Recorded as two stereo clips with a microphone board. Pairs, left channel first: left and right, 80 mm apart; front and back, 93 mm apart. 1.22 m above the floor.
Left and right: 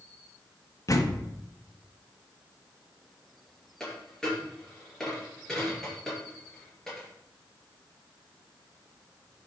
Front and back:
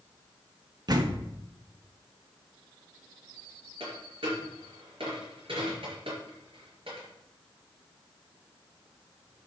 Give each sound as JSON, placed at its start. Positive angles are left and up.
{"t": 0.9, "sound": "a door slam", "azimuth_deg": 135, "distance_m": 1.2}
{"t": 3.8, "sound": "a dropped coin", "azimuth_deg": 175, "distance_m": 4.0}